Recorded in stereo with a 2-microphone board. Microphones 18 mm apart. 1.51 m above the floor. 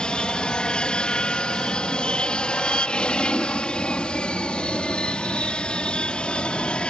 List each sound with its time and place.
0.0 s an aircraft: 60° left (ahead or behind); by 6.9 s 70° left (ahead or behind)